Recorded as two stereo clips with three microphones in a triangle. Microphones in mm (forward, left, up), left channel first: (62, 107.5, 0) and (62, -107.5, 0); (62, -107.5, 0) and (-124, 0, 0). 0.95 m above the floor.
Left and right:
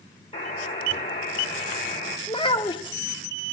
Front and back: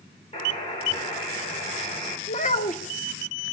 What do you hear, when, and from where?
0.3 s a buzzer: 30° left, 3.5 m
2.3 s a child speaking: 20° left, 0.9 m